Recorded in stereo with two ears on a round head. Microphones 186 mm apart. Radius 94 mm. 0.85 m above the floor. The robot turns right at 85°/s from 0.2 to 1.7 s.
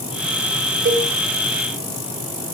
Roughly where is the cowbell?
Right.